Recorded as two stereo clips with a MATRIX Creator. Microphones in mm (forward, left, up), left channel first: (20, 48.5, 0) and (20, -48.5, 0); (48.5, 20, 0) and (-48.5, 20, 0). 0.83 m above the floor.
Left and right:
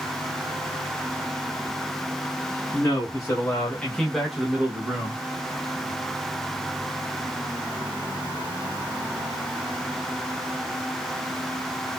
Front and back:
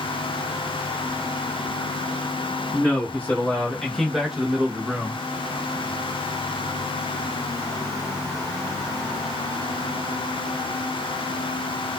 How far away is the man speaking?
About 1.1 m.